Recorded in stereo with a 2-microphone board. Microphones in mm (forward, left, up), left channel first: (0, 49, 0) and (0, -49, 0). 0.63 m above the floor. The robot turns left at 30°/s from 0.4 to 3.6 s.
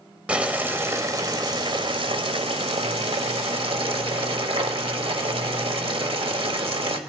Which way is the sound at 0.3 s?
10° right.